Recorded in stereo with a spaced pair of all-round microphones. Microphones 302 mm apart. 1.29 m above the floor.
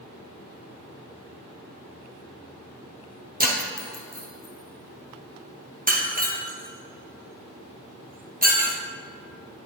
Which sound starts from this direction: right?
Breaking glass, at 3.4 s.